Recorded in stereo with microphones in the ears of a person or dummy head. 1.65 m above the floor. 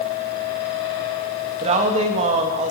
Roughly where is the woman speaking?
Right.